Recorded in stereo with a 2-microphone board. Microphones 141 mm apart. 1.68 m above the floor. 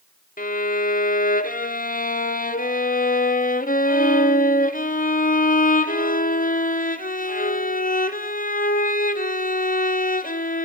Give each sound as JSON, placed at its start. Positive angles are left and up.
{"t": 0.4, "sound": "a violin", "side_deg": 80, "distance_m": 0.9}